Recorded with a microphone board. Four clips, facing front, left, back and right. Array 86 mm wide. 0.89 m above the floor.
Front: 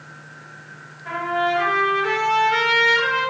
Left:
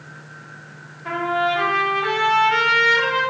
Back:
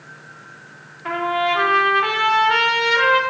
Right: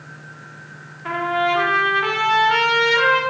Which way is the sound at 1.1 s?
145° right.